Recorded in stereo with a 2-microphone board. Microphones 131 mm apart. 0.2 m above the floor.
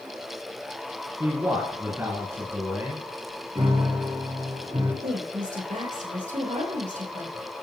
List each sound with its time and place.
1.2 s a man speaking: 20° right (ahead or behind), 2.5 m
3.5 s a piano: 35° right (ahead or behind), 3 m
5.0 s a woman speaking: 70° right (ahead or behind), 3 m